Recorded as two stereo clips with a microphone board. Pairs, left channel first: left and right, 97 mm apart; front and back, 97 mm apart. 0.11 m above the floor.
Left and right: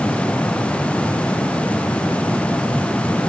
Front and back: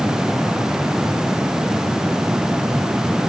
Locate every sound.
Only background noise.